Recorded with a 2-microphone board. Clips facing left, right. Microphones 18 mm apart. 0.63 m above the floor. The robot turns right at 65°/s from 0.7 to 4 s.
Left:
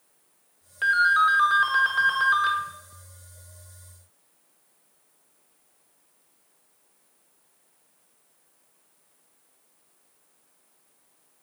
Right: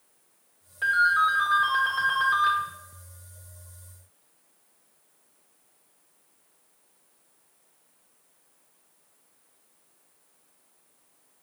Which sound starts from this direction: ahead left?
A ringtone, at 0.8 s.